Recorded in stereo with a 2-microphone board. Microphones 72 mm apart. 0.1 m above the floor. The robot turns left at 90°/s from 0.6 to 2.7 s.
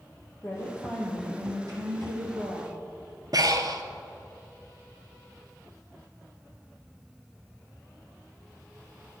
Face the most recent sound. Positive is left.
turn(degrees=-60)  # may be behind; listen again after turning